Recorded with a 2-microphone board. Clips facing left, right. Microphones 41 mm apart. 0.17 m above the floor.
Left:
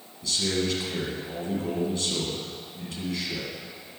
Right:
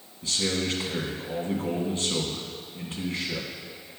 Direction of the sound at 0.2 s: 30° right (ahead or behind).